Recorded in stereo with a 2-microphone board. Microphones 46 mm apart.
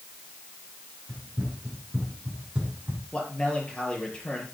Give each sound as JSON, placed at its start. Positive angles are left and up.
{"t": 1.1, "sound": "running footsteps", "side_deg": -20, "distance_m": 6.0}
{"t": 3.1, "sound": "a man speaking", "side_deg": 20, "distance_m": 5.0}